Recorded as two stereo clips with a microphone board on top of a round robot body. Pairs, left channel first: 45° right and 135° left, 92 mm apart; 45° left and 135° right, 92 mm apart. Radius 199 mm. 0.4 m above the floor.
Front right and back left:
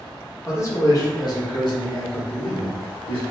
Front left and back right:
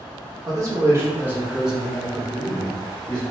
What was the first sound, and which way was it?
A man speaking, 100° right.